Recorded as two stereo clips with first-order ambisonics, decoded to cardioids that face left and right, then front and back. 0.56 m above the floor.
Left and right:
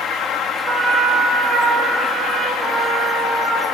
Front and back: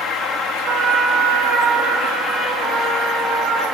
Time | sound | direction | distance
0.7 | a trumpet | 150° right | 1.2 m
2.6 | a trumpet | 5° left | 3.5 m